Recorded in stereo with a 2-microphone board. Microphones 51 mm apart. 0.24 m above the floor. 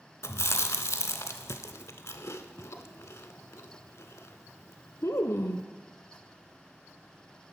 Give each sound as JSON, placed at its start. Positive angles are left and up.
{"t": 0.2, "sound": "chewing", "side_deg": 75, "distance_m": 0.6}